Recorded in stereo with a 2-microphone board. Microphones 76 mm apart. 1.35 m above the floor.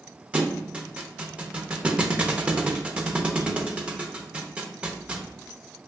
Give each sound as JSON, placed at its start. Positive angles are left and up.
{"t": 0.3, "sound": "a thud", "side_deg": -15, "distance_m": 0.6}